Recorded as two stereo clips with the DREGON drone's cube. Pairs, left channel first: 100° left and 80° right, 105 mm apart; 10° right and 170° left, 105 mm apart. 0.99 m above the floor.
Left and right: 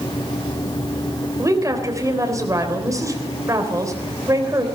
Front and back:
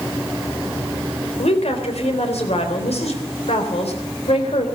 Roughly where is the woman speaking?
Ahead.